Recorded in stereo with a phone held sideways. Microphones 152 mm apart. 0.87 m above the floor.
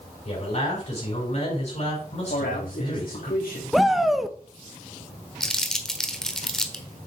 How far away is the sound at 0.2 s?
About 5 m.